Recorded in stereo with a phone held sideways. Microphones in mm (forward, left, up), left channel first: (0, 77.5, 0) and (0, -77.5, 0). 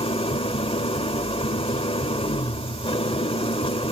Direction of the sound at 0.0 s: 35° left (ahead or behind).